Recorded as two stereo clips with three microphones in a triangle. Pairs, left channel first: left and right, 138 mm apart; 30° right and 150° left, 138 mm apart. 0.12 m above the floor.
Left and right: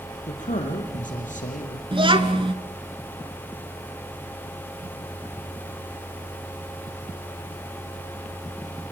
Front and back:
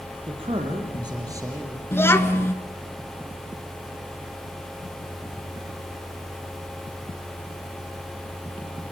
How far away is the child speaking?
About 1.4 m.